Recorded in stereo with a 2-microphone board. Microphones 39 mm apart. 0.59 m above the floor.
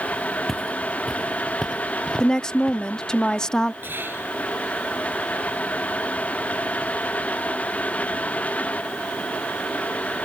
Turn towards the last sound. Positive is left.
turn(degrees=-65)  # may be behind; listen again after turning